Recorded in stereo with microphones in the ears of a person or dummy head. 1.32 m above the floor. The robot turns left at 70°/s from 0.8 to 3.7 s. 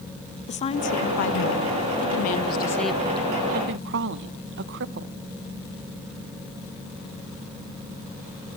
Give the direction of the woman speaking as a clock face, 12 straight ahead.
7 o'clock.